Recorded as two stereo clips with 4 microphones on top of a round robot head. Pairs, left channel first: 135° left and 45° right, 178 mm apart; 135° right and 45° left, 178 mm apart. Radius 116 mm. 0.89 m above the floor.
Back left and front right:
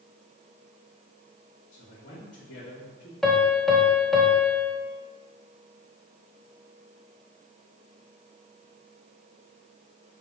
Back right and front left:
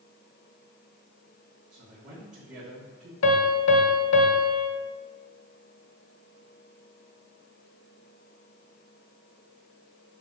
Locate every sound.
1.7 s a man speaking: 90° left, 3 m
3.2 s a piano: 140° right, 1.1 m